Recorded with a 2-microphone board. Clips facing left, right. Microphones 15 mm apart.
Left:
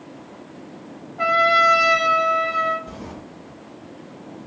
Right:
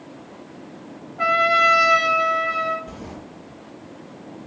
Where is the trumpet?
25° left (ahead or behind), 1.1 m.